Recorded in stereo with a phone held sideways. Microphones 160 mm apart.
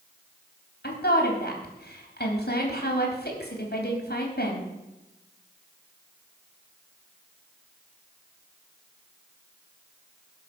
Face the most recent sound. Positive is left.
turn(degrees=75)  # may be behind; listen again after turning